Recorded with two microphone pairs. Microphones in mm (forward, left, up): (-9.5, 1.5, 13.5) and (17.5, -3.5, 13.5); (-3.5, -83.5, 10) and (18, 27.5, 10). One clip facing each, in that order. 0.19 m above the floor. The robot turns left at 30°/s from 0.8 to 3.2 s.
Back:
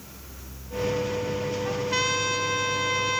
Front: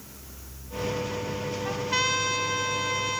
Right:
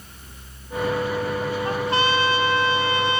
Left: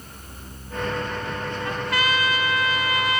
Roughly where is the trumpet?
Right.